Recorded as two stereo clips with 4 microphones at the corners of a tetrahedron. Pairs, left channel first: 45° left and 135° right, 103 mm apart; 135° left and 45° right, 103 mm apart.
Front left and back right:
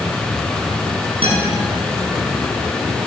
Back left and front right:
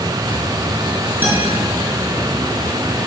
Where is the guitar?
115° right, 5.5 m.